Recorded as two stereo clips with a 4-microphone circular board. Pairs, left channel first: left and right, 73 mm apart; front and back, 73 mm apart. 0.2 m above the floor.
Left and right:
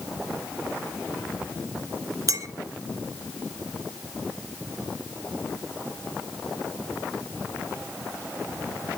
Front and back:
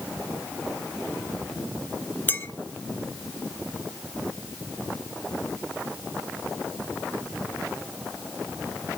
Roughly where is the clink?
Ahead right.